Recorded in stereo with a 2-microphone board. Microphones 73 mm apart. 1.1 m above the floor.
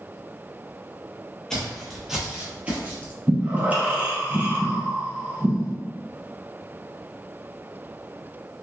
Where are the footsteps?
10° left (ahead or behind), 1.1 m; by 3.1 s 25° right (ahead or behind), 1.2 m.